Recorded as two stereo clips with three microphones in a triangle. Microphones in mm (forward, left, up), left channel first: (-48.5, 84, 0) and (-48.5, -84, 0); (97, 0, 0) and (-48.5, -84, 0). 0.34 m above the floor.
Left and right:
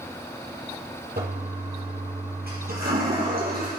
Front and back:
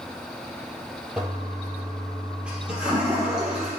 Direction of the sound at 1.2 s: 65° right.